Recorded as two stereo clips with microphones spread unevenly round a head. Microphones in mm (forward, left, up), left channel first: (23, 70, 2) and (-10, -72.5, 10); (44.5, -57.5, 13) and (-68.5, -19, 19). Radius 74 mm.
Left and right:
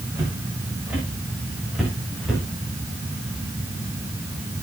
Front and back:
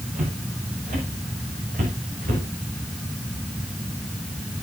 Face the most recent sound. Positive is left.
turn(degrees=165)